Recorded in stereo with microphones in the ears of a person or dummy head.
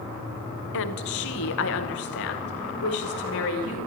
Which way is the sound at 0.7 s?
80° left.